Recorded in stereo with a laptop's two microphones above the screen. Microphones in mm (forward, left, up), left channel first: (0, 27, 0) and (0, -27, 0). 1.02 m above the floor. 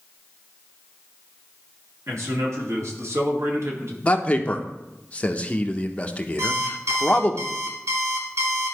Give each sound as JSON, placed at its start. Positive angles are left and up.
{"t": 2.1, "sound": "a man speaking", "side_deg": -70, "distance_m": 2.5}
{"t": 4.0, "sound": "a man speaking", "side_deg": 25, "distance_m": 0.9}
{"t": 6.4, "sound": "an alarm clock", "side_deg": -65, "distance_m": 1.1}